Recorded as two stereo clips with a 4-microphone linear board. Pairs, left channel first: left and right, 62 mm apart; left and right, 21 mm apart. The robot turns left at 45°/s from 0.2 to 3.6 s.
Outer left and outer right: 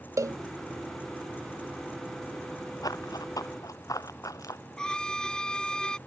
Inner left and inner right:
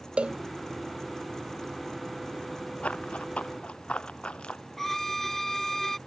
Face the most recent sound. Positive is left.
turn(degrees=15)  # may be behind; listen again after turning